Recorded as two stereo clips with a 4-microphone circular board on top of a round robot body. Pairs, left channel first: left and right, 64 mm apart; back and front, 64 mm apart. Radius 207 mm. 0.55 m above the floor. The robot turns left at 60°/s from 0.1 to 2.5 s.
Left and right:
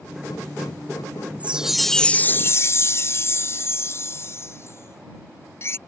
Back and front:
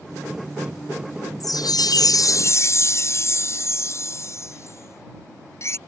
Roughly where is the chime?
Behind right.